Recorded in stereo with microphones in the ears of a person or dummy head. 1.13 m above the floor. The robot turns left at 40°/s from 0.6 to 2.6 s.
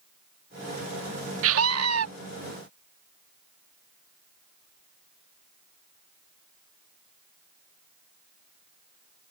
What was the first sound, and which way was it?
A scream, 75° right (ahead or behind).